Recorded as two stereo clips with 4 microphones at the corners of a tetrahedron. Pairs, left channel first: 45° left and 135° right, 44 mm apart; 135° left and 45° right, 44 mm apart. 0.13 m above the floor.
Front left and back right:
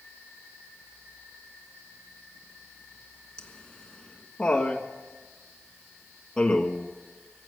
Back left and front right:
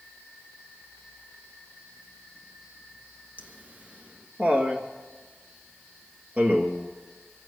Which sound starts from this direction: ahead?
Laughter, at 3.4 s.